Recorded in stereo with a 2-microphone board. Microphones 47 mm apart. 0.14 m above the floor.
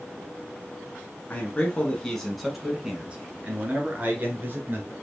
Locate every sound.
1.3 s a man speaking: 30° left (ahead or behind), 1.3 m; by 4.9 s 45° right (ahead or behind), 2 m